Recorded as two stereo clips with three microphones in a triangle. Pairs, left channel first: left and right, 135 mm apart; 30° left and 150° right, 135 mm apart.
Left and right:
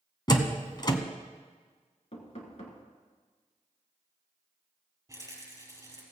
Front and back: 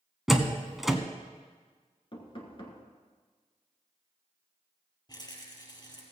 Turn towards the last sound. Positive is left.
turn(degrees=-25)